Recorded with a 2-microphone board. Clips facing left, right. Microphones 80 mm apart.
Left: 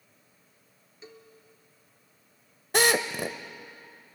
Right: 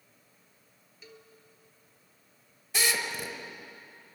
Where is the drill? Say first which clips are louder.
Left 7 dB; 55° left (ahead or behind), 1.0 m.